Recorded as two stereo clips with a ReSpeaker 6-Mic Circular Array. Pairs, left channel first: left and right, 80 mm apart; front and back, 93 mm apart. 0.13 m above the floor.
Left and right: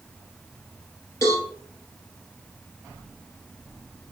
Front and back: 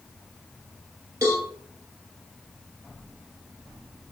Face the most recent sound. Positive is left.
turn(degrees=130)